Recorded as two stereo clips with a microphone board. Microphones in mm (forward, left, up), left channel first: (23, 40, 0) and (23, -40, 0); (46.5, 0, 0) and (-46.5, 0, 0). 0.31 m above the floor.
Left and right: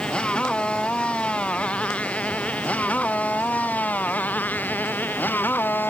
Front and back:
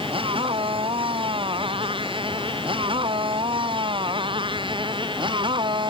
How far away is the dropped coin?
I don't hear a dropped coin.